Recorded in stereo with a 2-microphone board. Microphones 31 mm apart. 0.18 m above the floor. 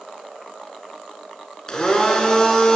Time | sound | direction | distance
1.7 | a blender | 25° left (ahead or behind) | 0.9 m